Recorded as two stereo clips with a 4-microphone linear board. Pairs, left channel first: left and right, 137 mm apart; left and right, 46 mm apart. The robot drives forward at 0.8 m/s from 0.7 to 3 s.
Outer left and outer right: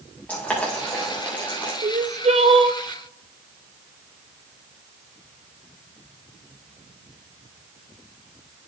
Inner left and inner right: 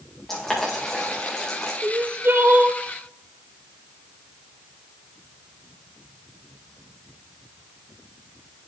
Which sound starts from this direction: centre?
Boiling, at 0.3 s.